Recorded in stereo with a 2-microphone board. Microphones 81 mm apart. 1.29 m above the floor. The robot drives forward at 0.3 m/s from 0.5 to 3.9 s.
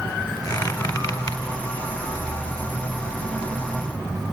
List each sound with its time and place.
0.5 s a squeak: 50° left (ahead or behind), 4.5 m